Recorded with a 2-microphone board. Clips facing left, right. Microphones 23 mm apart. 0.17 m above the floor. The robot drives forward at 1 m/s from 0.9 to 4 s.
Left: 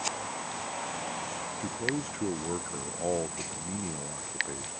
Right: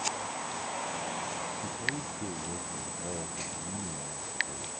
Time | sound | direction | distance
1.6 | a man speaking | 55° left (ahead or behind) | ?